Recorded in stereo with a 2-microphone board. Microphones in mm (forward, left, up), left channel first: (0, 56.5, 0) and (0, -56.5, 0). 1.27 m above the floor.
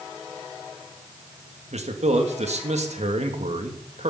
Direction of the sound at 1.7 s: 75° right (ahead or behind).